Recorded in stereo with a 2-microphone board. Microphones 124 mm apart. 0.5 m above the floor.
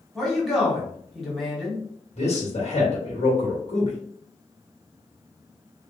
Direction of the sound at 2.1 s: 55° left (ahead or behind).